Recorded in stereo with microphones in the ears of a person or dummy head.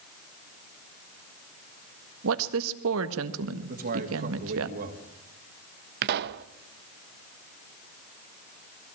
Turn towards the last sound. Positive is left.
turn(degrees=-55)  # may be behind; listen again after turning